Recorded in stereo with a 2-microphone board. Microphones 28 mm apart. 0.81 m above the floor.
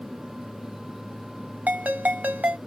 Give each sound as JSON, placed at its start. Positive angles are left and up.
{"t": 1.7, "sound": "a ringtone", "side_deg": -80, "distance_m": 1.3}